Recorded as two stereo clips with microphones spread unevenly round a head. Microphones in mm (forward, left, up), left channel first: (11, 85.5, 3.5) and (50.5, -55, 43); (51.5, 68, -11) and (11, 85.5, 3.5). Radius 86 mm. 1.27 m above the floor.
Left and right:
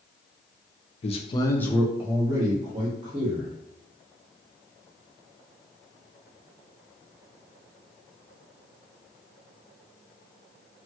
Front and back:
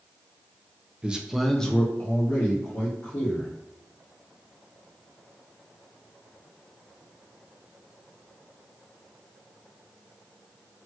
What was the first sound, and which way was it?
A man speaking, 80° left.